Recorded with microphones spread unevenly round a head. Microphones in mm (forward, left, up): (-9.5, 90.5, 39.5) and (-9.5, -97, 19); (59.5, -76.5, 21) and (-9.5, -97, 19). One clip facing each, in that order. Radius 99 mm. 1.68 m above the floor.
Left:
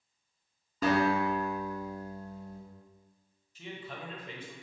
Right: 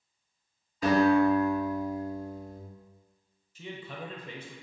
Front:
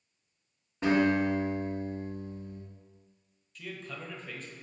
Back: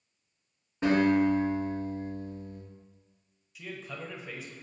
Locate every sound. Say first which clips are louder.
0.8 s a guitar: right 6 dB, back 2 dB; 105° left, 1.9 m
3.5 s a man speaking: right 2 dB, back 1 dB; 80° right, 0.8 m